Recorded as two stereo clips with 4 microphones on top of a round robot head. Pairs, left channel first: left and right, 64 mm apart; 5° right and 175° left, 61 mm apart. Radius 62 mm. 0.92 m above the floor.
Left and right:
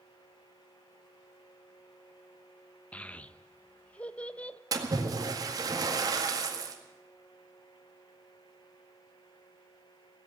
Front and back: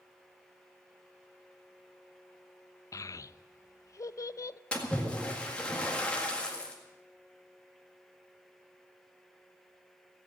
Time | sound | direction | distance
2.9 | a child speaking | 20° left | 0.5 m
4.7 | a splash | 75° right | 1.9 m